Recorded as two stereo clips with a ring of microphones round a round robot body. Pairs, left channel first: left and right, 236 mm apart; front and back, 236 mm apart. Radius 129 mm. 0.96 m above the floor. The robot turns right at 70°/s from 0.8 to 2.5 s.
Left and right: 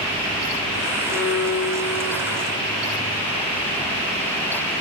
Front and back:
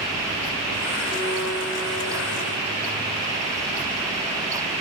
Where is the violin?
100° left, 4 m; by 2.5 s 160° right, 4 m.